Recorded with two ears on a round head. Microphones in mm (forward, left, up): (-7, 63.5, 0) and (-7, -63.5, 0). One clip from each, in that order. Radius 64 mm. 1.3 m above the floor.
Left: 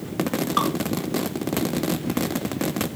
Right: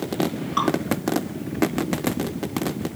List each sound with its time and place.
0.6 s dripping: 20° left (ahead or behind), 5.5 m